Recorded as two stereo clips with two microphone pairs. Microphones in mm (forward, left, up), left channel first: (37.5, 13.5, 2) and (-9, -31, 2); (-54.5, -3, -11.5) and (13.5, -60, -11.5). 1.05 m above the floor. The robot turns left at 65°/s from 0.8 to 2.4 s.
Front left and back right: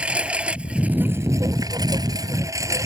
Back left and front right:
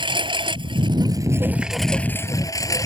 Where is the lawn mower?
65° right; by 2.9 s 170° right.